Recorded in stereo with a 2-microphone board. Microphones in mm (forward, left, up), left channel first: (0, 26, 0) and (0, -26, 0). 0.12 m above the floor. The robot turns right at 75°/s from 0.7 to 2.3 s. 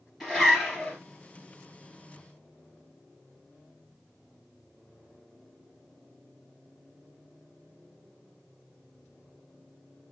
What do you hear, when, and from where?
0.2 s a zipper: 5° right (ahead or behind), 2.5 m; by 1.0 s 10° left (ahead or behind), 2.5 m